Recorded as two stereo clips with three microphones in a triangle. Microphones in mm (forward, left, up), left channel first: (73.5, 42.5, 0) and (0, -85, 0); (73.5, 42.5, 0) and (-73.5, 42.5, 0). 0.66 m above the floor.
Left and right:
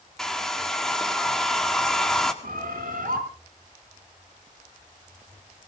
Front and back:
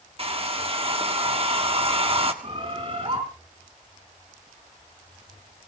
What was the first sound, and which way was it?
A hair dryer, 145° left.